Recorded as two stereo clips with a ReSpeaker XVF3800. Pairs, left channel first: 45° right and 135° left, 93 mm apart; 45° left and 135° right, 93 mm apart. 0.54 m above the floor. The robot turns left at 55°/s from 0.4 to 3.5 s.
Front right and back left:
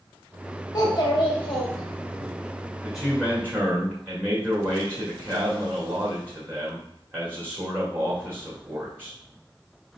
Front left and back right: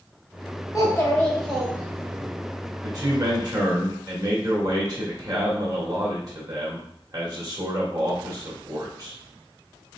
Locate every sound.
0.7 s a child speaking: 5° right, 1.4 m; by 2.3 s 90° right, 1.4 m
2.8 s a man speaking: 130° right, 1.6 m; by 9.2 s 165° right, 1.6 m